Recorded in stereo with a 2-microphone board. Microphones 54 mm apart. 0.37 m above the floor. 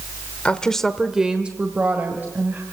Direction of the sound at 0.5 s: 25° left (ahead or behind).